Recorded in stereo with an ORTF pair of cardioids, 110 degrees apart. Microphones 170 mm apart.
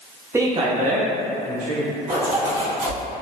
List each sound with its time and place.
0.3 s a man speaking: 15° right, 0.6 m; by 2.0 s 75° right, 1.7 m
2.1 s a zipper: 35° right, 1.9 m